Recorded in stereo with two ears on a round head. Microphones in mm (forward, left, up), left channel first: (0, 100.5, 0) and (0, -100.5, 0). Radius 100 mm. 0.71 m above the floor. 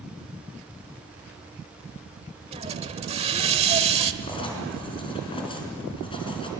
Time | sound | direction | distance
2.5 | a hiss | 30° right (ahead or behind) | 1.1 m
4.2 | writing | 25° left (ahead or behind) | 4 m